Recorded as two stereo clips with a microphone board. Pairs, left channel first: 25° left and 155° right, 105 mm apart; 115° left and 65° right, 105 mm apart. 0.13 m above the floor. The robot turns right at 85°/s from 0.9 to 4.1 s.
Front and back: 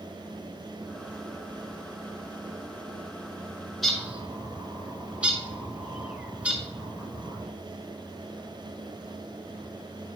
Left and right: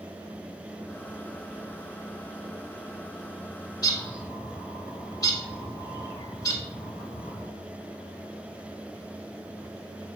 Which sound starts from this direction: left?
A bird, at 3.8 s.